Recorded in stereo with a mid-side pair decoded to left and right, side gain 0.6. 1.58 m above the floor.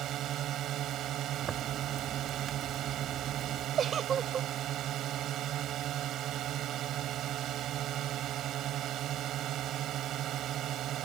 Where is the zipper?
35° right.